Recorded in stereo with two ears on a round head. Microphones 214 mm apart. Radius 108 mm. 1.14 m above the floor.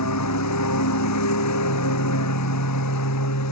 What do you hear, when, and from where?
0.0 s a lawn mower: 85° left